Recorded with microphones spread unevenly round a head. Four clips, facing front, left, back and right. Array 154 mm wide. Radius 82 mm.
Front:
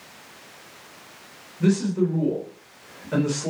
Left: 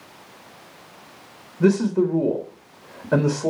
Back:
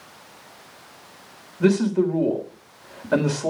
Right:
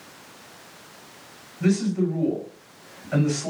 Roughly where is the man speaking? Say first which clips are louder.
Left 4 dB, back 3 dB; behind left.